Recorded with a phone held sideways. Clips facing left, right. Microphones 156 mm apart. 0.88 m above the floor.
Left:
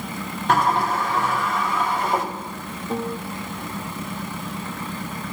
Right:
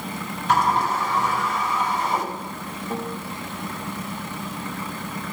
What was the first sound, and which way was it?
A sliding door, 55° left (ahead or behind).